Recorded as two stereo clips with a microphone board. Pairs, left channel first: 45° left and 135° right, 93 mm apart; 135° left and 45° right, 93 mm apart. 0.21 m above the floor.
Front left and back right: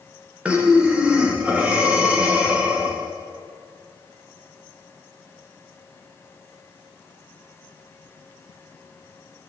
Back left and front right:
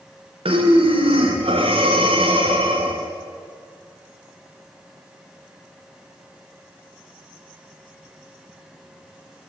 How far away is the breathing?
About 5.5 m.